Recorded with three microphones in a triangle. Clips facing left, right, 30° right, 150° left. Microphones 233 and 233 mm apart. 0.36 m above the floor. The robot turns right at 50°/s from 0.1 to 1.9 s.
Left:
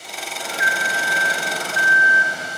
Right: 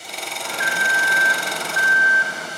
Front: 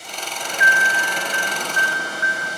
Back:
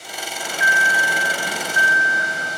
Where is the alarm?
30° left, 1.6 m; by 2.5 s 105° left, 1.6 m.